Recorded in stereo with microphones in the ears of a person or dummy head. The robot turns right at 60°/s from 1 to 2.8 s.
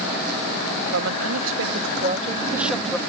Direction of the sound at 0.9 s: 105° right.